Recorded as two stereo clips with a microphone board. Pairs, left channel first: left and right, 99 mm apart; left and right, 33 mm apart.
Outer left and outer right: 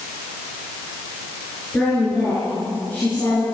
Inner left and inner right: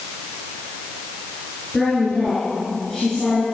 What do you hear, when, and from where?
1.7 s a woman speaking: 15° left (ahead or behind), 9 m; by 3.4 s 20° left (ahead or behind), 8 m